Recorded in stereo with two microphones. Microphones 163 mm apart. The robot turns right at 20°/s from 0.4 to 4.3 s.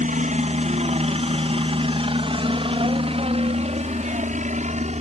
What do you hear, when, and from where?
0.0 s a helicopter: 50° right (ahead or behind); by 5.0 s 40° right (ahead or behind)